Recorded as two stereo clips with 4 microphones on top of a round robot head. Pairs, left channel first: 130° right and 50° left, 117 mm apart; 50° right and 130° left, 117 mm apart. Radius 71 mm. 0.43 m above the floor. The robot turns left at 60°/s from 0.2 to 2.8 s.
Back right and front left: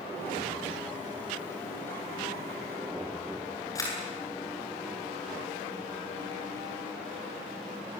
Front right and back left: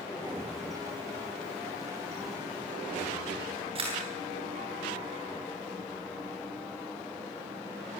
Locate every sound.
3.8 s a camera shutter: 170° left, 8 m